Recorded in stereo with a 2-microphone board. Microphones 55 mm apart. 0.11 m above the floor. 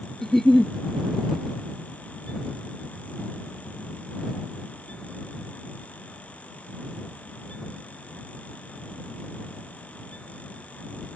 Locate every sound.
0.2 s a giggle: 5° left (ahead or behind)